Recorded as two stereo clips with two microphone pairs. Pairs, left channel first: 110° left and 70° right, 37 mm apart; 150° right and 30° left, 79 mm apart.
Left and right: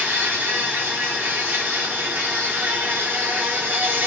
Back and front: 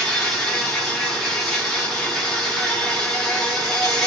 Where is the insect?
70° right, 1.0 m.